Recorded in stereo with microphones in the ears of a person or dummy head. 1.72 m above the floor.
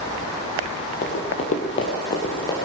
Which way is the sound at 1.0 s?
40° left (ahead or behind).